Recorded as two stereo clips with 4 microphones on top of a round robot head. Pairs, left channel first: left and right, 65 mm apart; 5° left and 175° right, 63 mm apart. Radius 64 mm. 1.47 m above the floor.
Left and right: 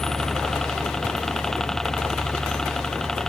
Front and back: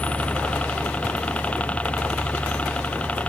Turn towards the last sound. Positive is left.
turn(degrees=20)